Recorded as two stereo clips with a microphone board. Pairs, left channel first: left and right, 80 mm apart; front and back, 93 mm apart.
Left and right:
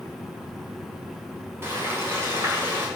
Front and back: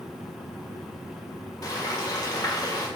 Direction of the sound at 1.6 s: 35° right.